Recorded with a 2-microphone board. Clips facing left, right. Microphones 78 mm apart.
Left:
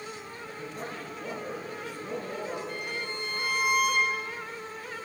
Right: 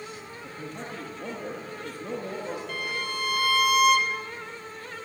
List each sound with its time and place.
0.4 s a man speaking: 50° right (ahead or behind), 8 m
2.7 s a violin: 75° right (ahead or behind), 2.0 m